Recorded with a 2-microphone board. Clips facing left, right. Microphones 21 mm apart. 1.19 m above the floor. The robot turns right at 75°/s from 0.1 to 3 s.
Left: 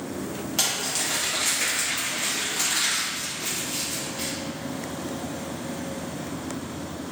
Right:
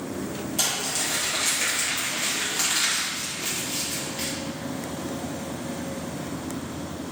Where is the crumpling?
45° left (ahead or behind), 1.0 m; by 4.3 s 45° right (ahead or behind), 1.0 m.